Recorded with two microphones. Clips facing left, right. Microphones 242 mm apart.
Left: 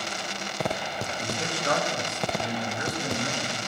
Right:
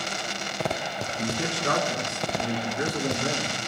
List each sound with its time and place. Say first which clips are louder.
1.1 s a man speaking: right 5 dB; 75° right (ahead or behind), 4 m